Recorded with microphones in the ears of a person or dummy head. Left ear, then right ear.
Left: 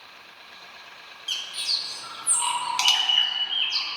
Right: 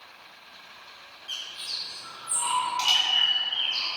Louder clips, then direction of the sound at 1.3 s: Left 7 dB; 35° left (ahead or behind).